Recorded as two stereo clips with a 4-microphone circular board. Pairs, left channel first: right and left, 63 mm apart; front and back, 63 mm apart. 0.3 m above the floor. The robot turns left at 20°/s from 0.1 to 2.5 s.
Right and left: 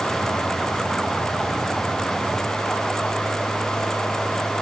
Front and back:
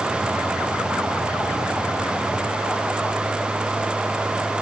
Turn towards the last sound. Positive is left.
No sound to turn to.